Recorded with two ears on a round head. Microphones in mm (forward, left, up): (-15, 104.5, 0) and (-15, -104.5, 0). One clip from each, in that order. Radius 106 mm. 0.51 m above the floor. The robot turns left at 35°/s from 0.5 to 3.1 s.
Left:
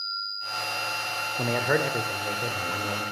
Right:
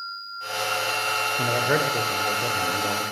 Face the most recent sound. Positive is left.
turn(degrees=-35)